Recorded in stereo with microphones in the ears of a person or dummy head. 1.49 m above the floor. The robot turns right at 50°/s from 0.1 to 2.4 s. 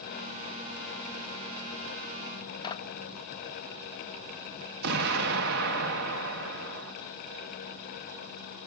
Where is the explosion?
55° right (ahead or behind), 2.5 m.